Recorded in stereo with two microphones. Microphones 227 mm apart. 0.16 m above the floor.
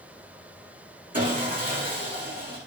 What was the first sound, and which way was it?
Sawing, 40° right (ahead or behind).